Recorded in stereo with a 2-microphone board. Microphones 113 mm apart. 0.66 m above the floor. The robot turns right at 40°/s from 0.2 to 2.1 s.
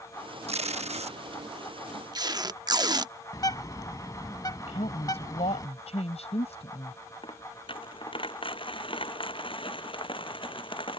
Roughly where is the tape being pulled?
Right.